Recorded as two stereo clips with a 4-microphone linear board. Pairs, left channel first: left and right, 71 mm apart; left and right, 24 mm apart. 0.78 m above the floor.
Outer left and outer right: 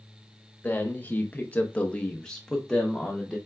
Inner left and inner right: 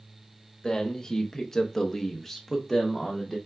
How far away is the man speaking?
About 1.0 m.